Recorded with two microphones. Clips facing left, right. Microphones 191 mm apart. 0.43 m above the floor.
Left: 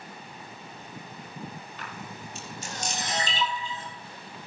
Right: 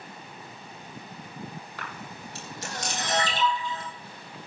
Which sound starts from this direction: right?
A camera shutter, at 1.8 s.